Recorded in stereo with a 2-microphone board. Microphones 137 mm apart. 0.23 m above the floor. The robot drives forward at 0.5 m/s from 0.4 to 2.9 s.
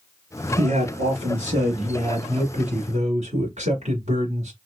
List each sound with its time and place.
0.6 s a man speaking: 55° right (ahead or behind), 1.8 m